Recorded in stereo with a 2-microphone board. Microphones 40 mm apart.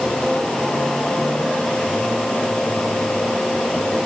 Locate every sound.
Only background noise.